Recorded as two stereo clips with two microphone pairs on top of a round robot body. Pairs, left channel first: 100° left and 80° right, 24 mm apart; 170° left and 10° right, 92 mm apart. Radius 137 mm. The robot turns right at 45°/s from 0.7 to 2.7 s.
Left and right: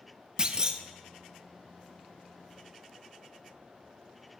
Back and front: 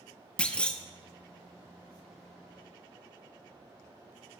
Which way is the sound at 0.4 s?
115° right.